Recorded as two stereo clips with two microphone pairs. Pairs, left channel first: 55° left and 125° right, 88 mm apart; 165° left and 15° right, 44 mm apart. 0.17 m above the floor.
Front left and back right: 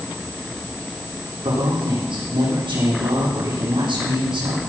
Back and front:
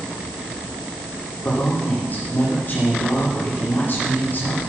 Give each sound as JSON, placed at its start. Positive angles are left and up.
{"t": 1.4, "sound": "a man speaking", "azimuth_deg": -150, "distance_m": 9.0}